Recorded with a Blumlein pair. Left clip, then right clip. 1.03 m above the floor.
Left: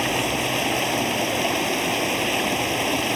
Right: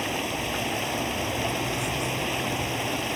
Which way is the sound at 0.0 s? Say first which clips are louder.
Left 6 dB; 20° left.